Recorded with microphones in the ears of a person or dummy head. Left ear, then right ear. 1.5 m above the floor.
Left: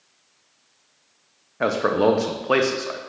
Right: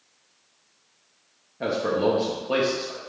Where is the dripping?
No dripping in this recording.